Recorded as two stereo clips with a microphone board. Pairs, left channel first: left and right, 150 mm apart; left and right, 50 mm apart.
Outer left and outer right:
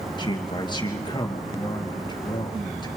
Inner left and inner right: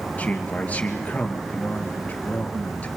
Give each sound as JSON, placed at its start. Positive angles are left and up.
{"t": 0.2, "sound": "a man speaking", "side_deg": 30, "distance_m": 3.0}